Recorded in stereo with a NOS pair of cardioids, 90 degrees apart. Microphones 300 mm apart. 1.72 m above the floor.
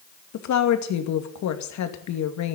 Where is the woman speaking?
70° left, 2.5 m.